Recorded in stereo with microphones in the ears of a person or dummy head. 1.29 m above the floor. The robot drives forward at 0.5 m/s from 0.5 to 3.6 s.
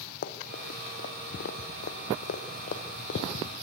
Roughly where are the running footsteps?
Left.